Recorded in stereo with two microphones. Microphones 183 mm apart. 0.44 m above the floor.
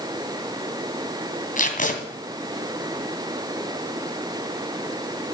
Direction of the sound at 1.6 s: 45° left (ahead or behind).